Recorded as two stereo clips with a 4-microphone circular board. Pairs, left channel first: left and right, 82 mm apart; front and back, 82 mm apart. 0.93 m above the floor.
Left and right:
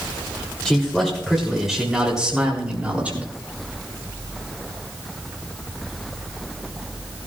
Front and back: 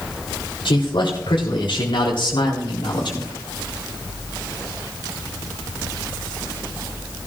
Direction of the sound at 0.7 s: 10° left.